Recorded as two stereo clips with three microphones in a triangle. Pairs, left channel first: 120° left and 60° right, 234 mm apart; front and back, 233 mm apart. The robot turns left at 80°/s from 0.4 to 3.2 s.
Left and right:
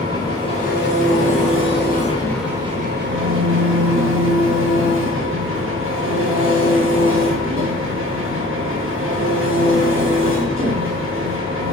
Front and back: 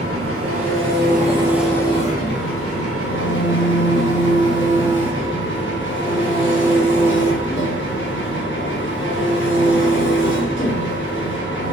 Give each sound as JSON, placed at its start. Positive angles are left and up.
{"t": 0.0, "sound": "an engine running", "azimuth_deg": -170, "distance_m": 1.2}